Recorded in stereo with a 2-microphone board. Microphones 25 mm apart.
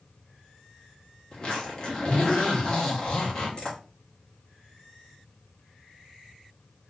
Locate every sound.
1.3 s a zipper: 35° left (ahead or behind), 1.0 m